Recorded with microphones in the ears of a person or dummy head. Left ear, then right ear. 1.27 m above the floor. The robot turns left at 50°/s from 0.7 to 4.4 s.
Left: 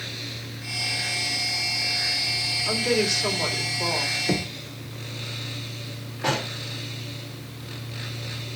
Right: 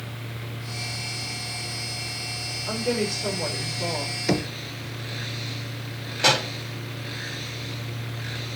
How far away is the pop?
About 3 m.